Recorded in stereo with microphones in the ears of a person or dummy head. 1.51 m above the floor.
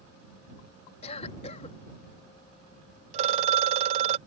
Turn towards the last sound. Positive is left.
turn(degrees=-35)  # may be behind; listen again after turning